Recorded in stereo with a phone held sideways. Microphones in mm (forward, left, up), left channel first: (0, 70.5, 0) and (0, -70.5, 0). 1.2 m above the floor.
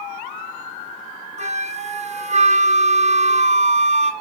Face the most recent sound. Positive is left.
turn(degrees=-50)  # may be behind; listen again after turning